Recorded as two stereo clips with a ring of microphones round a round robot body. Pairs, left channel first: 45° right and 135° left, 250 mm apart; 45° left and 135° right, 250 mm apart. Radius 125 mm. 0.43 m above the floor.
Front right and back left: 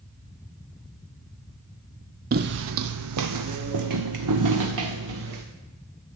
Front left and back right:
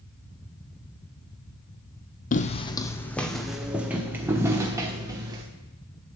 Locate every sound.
2.3 s footsteps: 90° left, 0.6 m; by 5.4 s 150° left, 2 m